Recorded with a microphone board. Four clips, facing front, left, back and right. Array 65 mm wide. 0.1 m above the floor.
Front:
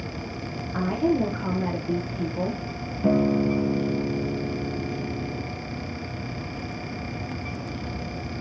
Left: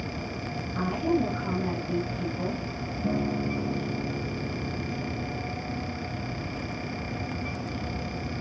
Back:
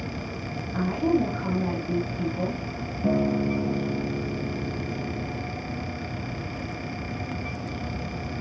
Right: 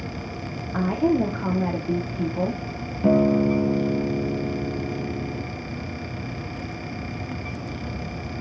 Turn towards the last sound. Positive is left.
turn(degrees=-65)